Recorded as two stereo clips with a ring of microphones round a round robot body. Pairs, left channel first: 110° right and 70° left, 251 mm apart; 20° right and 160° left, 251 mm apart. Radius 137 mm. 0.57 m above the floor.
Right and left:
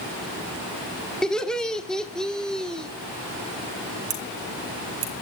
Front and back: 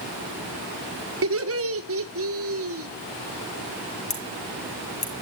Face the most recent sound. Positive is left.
turn(degrees=40)